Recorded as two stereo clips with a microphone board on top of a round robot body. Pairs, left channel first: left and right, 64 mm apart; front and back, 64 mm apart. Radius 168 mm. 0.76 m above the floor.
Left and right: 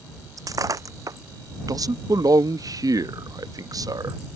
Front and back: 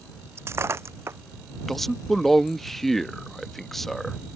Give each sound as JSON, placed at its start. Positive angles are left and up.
{"t": 0.4, "sound": "breaking glass", "azimuth_deg": -125}
{"t": 1.7, "sound": "a man speaking", "azimuth_deg": -85}